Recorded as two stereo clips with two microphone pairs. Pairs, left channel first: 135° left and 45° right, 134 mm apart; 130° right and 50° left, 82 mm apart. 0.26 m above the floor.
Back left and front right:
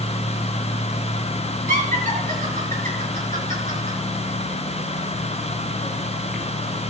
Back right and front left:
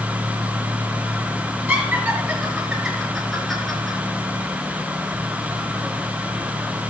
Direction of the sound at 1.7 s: 25° right.